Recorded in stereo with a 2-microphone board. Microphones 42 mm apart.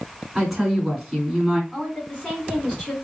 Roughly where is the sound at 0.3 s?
Centre.